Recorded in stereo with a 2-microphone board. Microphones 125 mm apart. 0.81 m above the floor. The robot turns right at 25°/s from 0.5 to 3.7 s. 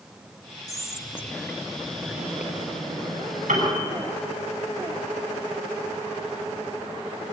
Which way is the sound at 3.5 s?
80° right.